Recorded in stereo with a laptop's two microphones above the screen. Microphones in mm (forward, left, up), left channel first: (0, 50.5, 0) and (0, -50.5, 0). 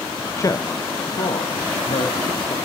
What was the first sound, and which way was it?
A man speaking, 30° left (ahead or behind).